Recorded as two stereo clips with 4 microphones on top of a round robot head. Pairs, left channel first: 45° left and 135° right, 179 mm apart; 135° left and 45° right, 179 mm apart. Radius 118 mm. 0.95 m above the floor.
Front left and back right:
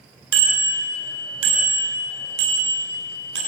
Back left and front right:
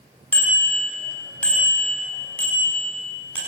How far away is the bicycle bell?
About 3.5 m.